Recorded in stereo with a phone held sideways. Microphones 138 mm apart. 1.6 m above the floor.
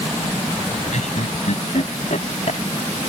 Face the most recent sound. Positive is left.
turn(degrees=60)  # may be behind; listen again after turning